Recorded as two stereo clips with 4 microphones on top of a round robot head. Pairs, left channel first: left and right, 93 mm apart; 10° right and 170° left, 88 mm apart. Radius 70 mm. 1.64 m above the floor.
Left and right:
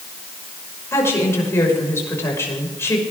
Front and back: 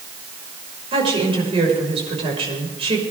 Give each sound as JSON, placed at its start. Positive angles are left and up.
{"t": 0.9, "sound": "a woman speaking", "azimuth_deg": 155, "distance_m": 5.5}